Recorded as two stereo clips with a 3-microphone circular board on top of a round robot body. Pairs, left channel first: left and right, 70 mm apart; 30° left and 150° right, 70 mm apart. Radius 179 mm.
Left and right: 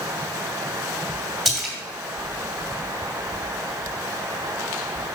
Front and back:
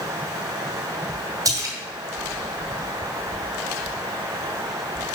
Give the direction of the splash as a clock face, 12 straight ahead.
6 o'clock.